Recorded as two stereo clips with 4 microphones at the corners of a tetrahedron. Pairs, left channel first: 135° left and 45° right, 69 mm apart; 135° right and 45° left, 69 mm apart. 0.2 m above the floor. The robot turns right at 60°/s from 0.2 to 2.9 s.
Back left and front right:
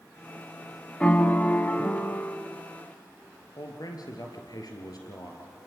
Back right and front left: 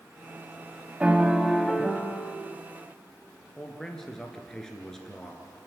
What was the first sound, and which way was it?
A piano, 90° left.